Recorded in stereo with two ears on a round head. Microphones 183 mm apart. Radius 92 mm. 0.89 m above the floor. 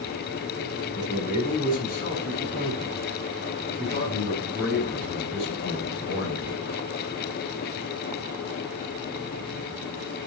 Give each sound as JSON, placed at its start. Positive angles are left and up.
{"t": 0.9, "sound": "a man speaking", "side_deg": 45, "distance_m": 8.0}